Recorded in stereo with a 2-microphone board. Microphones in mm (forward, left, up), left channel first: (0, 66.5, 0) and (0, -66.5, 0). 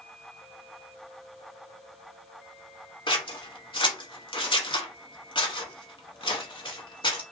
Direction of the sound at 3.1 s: 40° left (ahead or behind).